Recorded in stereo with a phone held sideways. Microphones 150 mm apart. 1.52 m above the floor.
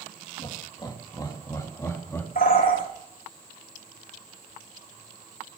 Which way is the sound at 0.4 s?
35° left (ahead or behind).